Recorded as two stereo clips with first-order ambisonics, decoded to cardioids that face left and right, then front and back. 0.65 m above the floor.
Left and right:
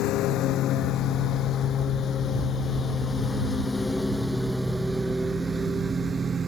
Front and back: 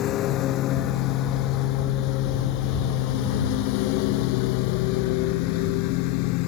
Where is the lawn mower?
50° left; by 6.5 s 20° right.